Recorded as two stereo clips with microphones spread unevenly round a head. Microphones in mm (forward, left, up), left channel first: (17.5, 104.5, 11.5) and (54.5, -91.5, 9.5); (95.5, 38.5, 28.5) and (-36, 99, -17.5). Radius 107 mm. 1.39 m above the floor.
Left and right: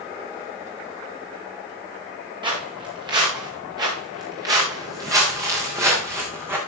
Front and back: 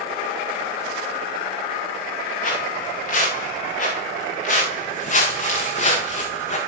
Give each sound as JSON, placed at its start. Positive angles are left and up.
{"t": 2.4, "sound": "footsteps", "azimuth_deg": -10, "distance_m": 8.0}